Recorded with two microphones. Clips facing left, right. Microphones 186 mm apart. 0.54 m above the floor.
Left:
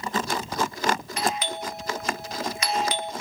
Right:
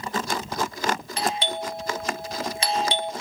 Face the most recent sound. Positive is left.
turn(degrees=-30)  # may be behind; listen again after turning